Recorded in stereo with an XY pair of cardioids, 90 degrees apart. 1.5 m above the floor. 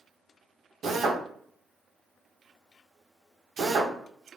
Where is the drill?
65° right, 1.1 m.